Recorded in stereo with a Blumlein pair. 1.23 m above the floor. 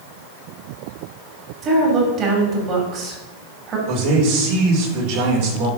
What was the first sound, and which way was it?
A woman speaking, 30° right.